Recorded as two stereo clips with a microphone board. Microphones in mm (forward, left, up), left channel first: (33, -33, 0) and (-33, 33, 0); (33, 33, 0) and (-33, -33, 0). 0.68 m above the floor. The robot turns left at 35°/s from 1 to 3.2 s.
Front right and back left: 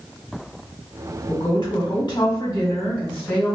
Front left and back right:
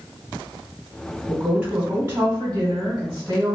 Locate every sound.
1.3 s a woman speaking: 50° right, 1.9 m; by 3.5 s 115° right, 1.9 m